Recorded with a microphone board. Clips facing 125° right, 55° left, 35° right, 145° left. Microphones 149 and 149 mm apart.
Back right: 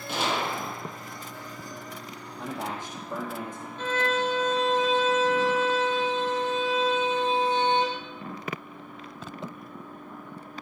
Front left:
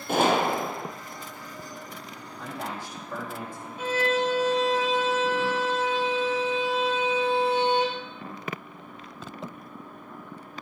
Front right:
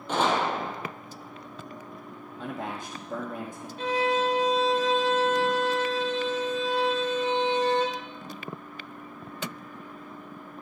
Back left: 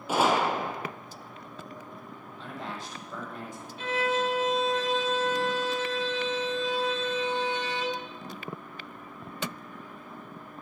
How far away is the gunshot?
About 0.8 m.